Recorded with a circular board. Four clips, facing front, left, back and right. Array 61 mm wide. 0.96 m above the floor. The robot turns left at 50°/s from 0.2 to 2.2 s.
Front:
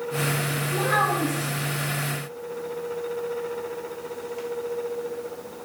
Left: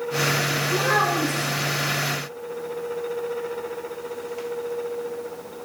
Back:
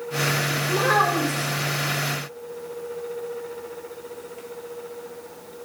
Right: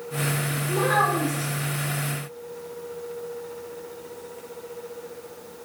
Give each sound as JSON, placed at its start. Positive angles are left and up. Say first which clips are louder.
{"t": 0.7, "sound": "a child speaking", "louder": "right 1 dB, back 3 dB", "azimuth_deg": -170, "distance_m": 0.7}